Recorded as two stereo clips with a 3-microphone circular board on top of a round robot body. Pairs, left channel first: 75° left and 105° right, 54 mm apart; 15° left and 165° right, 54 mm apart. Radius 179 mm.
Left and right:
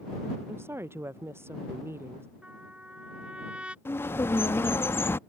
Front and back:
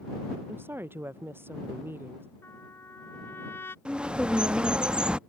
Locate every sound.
0.5 s a woman speaking: 130° right
2.4 s a trumpet: 35° right
3.9 s a bird: 120° left